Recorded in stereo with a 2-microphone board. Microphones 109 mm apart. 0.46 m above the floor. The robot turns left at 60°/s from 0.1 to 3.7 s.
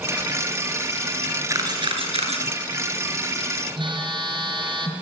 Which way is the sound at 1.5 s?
30° right (ahead or behind).